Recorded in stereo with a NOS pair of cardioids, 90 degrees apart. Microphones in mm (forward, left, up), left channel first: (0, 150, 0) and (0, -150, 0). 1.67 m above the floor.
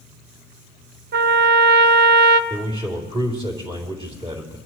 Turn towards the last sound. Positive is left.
turn(degrees=-20)